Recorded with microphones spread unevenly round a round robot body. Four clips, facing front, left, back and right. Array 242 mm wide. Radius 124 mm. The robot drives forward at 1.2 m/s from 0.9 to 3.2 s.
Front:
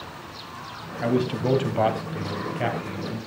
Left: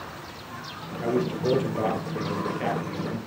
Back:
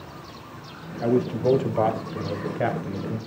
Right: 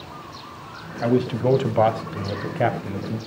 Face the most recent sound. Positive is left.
turn(degrees=-120)